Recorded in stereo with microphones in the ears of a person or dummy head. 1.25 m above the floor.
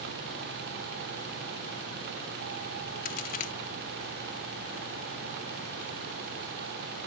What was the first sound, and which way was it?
A crack, 45° left (ahead or behind).